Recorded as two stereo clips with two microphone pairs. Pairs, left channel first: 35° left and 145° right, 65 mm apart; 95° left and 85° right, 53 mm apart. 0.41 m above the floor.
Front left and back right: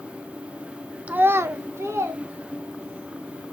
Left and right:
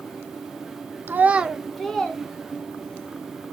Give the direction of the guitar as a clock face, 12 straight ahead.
No guitar in this recording.